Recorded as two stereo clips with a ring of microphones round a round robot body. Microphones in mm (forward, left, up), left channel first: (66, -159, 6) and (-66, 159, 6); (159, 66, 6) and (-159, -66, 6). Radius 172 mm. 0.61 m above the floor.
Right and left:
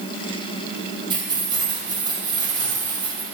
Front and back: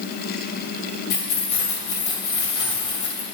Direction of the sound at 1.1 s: 35° left.